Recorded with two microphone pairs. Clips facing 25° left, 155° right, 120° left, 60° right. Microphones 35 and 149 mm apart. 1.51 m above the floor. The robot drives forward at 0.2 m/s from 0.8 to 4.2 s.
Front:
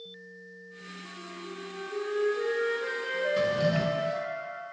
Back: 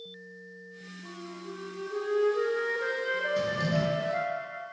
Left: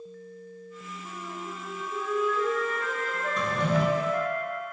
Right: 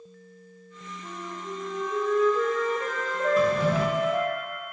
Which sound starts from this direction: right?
A flute, at 1.0 s.